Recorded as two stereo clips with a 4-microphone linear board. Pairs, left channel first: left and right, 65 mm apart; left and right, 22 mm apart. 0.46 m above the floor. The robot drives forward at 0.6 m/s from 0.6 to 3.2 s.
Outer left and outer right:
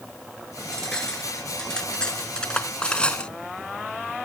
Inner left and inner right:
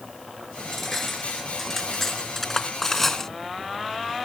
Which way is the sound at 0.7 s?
10° left (ahead or behind).